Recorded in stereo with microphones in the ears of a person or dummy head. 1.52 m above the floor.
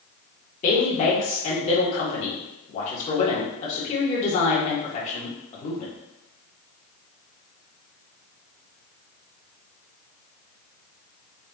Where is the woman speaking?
35° left (ahead or behind), 1.8 m.